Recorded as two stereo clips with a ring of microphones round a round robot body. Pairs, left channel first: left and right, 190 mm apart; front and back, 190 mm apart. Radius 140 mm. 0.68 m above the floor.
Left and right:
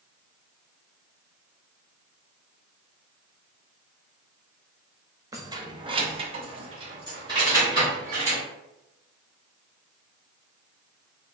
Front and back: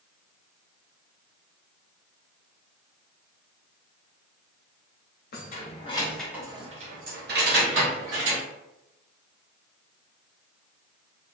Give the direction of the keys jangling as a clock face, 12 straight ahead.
1 o'clock.